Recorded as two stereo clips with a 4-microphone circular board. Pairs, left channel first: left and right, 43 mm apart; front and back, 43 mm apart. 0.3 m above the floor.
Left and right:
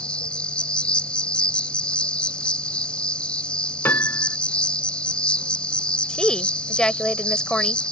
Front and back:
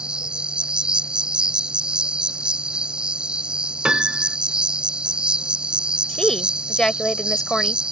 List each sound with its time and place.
0.0 s an insect: 135° left
3.9 s a piano: 110° left
6.1 s a woman speaking: 50° left